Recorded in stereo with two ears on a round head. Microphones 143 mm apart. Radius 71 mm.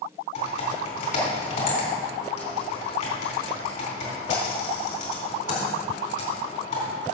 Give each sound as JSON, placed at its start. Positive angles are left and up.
{"t": 0.3, "sound": "typing on a keyboard", "side_deg": 45, "distance_m": 3.5}